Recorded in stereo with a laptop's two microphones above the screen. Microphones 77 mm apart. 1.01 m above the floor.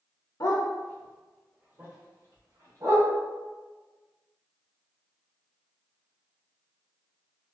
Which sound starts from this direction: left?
A dog barking, at 0.4 s.